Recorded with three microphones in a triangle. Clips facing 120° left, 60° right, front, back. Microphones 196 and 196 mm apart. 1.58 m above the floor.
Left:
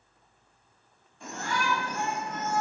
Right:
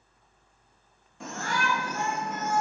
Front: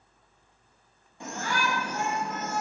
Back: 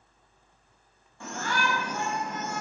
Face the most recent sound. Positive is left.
turn(degrees=-90)